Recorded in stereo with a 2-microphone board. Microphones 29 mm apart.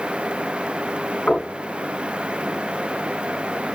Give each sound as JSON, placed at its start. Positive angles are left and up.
{"t": 1.3, "sound": "knocking", "side_deg": 60, "distance_m": 5.0}